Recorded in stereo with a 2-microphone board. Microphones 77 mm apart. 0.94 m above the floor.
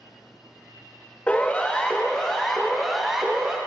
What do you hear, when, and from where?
1.3 s a siren: 20° left (ahead or behind), 2 m; by 3.6 s 10° right (ahead or behind), 1.9 m